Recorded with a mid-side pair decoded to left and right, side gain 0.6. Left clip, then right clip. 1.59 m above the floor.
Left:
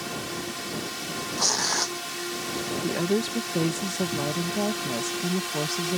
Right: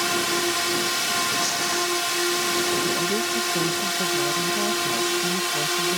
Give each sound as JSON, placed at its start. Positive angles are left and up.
{"t": 0.0, "sound": "a drone", "azimuth_deg": -50}
{"t": 1.4, "sound": "tearing paper", "azimuth_deg": 35}
{"t": 2.8, "sound": "a woman speaking", "azimuth_deg": 25}